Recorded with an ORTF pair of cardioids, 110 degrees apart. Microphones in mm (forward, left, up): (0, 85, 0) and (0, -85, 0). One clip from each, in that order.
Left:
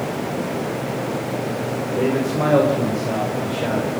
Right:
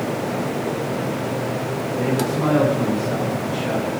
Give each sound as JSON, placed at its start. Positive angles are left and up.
{"t": 2.0, "sound": "a man speaking", "azimuth_deg": 65, "distance_m": 7.0}